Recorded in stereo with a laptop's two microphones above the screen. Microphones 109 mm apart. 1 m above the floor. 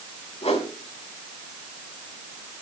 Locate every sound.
0.4 s a whoosh: 75° left (ahead or behind), 3.5 m